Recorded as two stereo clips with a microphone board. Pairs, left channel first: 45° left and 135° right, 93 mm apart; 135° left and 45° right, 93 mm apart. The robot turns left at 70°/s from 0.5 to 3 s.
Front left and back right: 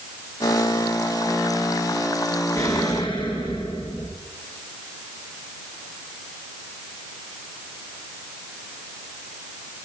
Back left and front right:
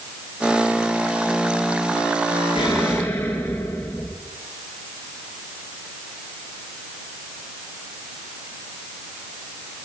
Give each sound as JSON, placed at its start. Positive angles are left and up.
{"t": 2.5, "sound": "an explosion", "azimuth_deg": 105, "distance_m": 6.0}